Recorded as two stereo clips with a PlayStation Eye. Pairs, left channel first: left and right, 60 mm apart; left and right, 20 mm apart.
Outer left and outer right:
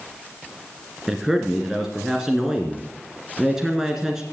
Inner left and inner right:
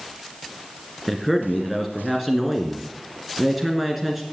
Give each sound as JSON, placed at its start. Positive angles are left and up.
{"t": 1.1, "sound": "a man speaking", "side_deg": -10, "distance_m": 1.8}